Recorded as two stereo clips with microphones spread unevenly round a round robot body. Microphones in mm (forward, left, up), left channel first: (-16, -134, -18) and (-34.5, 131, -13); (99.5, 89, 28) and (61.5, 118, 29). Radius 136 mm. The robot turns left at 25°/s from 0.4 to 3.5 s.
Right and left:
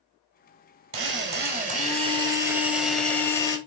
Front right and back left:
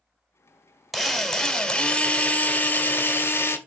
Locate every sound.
0.9 s a drill: 55° left, 1.7 m; by 3.6 s 10° right, 1.7 m